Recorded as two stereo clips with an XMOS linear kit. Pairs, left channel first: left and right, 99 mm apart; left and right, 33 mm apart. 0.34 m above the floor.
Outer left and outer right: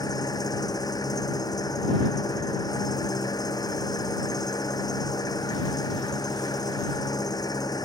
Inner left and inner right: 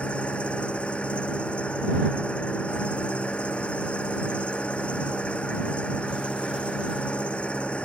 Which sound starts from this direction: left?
An engine running, at 0.0 s.